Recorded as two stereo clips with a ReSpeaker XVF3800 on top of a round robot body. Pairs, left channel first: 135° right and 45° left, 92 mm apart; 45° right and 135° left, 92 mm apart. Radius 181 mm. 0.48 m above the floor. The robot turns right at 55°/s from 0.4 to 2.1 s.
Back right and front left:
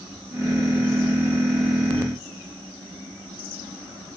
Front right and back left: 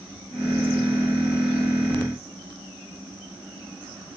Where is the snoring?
I don't hear snoring.